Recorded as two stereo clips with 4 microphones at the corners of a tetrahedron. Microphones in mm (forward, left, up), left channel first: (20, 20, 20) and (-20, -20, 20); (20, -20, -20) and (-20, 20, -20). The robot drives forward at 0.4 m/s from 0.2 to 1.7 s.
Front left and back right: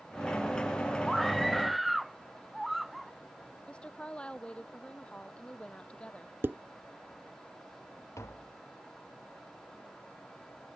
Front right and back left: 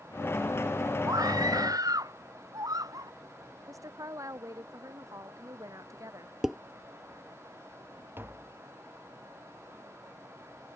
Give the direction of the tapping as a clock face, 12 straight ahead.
9 o'clock.